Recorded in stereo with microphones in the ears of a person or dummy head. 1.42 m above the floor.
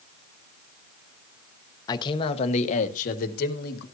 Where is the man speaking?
25° left (ahead or behind), 1.2 m; by 3.9 s 60° left (ahead or behind), 2 m.